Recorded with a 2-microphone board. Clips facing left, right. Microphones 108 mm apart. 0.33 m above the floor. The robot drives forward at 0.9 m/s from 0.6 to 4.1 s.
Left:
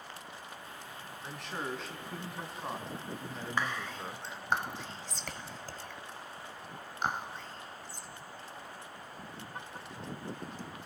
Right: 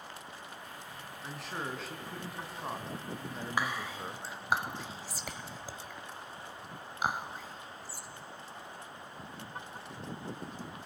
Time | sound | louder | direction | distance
1.2 | a man speaking | left 1 dB | centre (ahead or behind) | 3 m
3.6 | whispering | right 1 dB | 10° right (ahead or behind) | 1.2 m